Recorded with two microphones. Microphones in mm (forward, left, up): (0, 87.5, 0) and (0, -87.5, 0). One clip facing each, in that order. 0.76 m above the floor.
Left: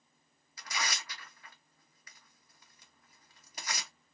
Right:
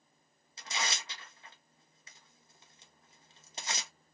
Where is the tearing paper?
25° right (ahead or behind), 0.8 m.